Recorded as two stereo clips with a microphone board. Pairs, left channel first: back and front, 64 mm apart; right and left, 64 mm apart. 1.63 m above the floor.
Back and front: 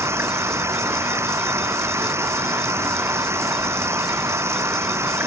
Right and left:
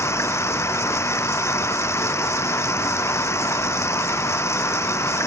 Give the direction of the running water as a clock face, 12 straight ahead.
1 o'clock.